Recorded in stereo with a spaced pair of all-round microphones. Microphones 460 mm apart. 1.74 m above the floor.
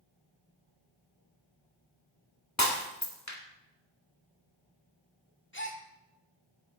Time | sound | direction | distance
2.6 | breaking glass | 35° left (ahead or behind) | 1.8 m
5.5 | a gasp | 25° left (ahead or behind) | 1.8 m